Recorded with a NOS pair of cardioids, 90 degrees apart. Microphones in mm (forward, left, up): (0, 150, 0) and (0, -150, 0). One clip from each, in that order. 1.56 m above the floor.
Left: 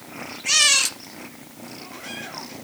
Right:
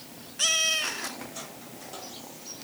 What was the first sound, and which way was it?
Only background noise.